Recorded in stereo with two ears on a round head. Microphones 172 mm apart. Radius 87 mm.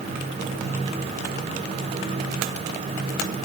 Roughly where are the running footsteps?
I don't hear running footsteps.